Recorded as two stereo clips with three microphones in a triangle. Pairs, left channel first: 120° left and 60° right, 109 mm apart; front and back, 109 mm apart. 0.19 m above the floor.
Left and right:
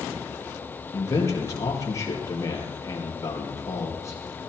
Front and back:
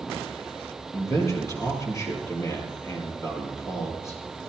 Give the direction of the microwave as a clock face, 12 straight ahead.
I don't hear a microwave.